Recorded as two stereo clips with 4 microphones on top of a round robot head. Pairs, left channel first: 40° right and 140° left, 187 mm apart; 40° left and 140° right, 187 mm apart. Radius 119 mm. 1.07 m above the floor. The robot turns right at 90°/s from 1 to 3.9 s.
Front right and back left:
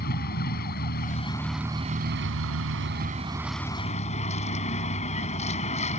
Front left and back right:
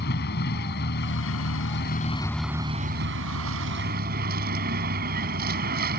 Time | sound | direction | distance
0.0 | a vehicle | straight ahead | ?